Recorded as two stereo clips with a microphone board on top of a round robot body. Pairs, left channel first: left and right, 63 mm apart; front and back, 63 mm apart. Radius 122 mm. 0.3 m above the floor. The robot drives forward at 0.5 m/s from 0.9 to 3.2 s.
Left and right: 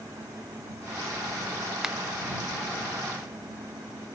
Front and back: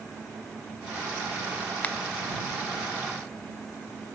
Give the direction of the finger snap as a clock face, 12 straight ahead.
1 o'clock.